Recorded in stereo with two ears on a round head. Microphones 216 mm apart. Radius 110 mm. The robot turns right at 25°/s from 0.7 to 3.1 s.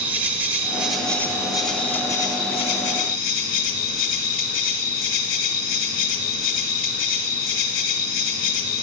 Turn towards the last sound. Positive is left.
turn(degrees=55)